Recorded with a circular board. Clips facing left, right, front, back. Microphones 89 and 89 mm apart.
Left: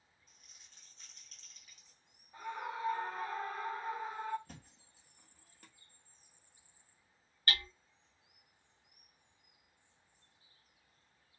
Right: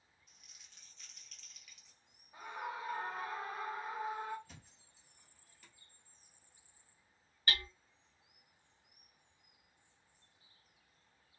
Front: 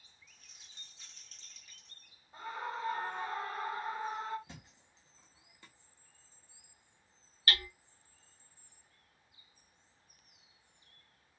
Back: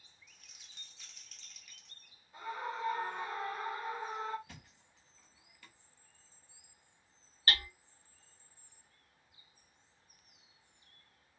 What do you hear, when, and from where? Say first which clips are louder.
0.3 s crumpling: even, even; 45° left, 1.1 m
2.3 s a scream: left 2 dB, even; 15° right, 1.5 m
4.5 s a thud: left 4 dB, front 2 dB; 60° left, 0.8 m
7.5 s hammering: even, even; 145° right, 1.0 m